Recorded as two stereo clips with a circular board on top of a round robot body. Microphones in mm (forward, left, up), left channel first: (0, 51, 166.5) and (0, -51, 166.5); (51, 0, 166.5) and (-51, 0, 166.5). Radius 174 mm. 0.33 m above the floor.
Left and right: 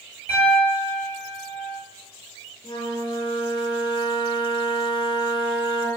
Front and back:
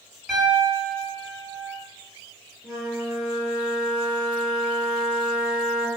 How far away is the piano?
About 1.5 m.